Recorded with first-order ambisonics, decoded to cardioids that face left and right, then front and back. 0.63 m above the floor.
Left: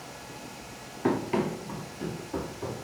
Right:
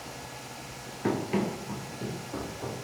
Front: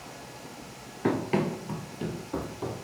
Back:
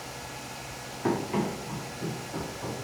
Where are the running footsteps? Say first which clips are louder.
Left 2 dB, front 1 dB; 5° left, 0.6 m; by 2.7 s 5° right, 1.4 m.